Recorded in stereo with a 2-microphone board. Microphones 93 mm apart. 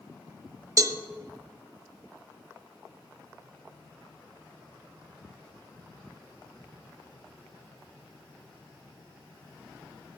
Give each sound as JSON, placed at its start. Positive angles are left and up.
{"t": 0.8, "sound": "a cowbell", "side_deg": -35, "distance_m": 0.8}